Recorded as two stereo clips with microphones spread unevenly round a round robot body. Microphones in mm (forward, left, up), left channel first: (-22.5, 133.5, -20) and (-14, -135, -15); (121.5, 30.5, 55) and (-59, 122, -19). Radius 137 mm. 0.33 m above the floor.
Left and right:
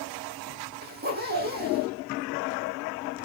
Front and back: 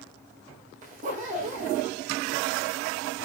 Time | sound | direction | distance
0.8 | a zipper | 145° right | 4.5 m